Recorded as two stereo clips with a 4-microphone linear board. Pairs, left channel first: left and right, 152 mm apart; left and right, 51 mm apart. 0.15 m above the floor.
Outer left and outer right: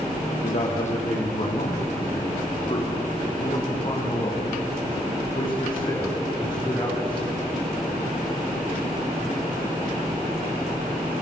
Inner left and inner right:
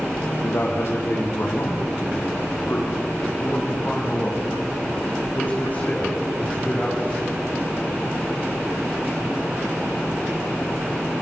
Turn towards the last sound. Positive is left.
turn(degrees=35)  # may be behind; listen again after turning